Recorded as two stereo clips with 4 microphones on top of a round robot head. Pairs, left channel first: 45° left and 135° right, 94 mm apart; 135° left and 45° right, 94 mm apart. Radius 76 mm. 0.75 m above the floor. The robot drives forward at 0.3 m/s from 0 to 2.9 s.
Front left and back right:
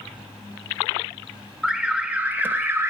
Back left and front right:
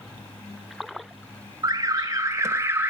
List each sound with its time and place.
1.6 s an alarm: 55° right, 0.9 m; by 2.9 s 95° right, 0.9 m